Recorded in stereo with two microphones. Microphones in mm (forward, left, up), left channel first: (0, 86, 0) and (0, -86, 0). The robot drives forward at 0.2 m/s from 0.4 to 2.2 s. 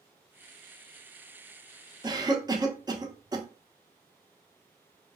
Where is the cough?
25° right (ahead or behind), 0.6 m.